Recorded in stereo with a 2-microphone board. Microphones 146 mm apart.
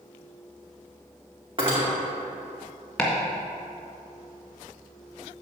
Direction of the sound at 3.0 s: 5° left (ahead or behind).